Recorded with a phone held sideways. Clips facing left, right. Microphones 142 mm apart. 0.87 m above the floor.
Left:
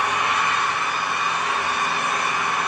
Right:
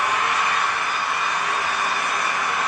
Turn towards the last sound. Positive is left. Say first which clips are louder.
# even
turn(degrees=60)  # may be behind; listen again after turning